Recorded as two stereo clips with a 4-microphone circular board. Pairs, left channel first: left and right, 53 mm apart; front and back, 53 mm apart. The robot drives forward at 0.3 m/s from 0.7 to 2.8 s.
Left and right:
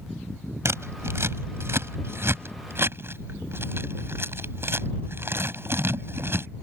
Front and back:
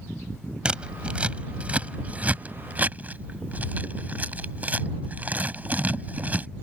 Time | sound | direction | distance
0.7 | scissors | 110° right | ?